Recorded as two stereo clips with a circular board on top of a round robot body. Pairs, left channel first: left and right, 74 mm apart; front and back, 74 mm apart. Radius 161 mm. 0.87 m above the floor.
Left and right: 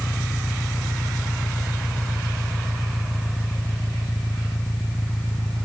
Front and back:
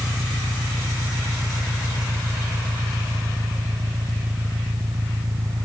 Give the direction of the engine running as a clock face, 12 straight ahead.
7 o'clock.